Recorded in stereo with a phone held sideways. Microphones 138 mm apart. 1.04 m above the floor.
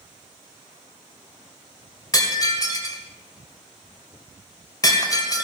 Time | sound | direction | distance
2.1 | breaking glass | 30° left (ahead or behind) | 2 m